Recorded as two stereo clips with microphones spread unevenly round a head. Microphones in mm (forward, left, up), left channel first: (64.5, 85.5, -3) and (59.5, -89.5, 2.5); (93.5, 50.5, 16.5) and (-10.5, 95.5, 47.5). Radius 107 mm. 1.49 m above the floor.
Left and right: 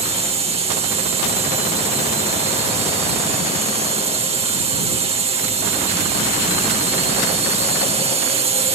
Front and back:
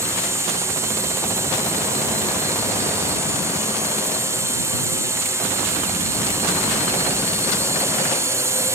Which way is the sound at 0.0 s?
130° right.